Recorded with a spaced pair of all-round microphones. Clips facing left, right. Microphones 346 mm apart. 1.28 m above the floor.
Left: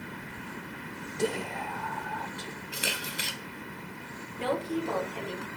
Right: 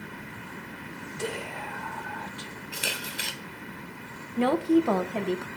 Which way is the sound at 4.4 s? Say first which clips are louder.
Right 9 dB; 70° right (ahead or behind).